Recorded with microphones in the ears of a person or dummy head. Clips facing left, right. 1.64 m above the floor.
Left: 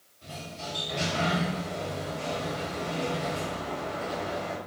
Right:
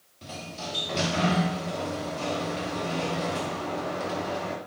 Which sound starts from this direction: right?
A sliding door, at 0.2 s.